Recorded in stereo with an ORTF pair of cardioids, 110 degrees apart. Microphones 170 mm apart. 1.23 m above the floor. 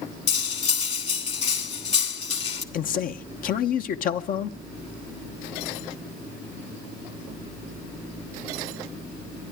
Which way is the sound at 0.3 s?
40° left.